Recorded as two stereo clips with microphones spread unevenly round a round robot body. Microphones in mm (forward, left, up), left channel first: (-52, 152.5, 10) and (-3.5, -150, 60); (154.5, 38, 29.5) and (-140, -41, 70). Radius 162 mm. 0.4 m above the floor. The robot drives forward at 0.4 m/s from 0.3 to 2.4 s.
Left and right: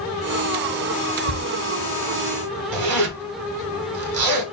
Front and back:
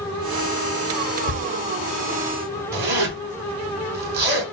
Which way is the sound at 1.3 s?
35° right.